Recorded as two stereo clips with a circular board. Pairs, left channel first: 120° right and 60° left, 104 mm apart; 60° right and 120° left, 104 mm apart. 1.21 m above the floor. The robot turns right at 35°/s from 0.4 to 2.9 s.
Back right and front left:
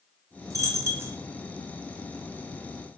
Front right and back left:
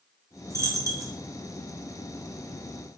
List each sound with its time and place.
0.5 s a dropped coin: 85° left, 0.5 m; by 1.1 s 110° left, 0.5 m